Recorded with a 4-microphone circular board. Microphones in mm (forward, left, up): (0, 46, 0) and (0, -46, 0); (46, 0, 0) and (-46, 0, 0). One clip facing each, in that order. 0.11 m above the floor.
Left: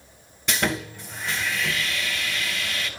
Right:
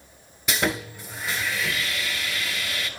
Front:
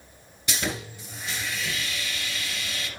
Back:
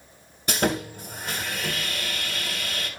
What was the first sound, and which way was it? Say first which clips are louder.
Sawing: even, back 7 dB; 170° right.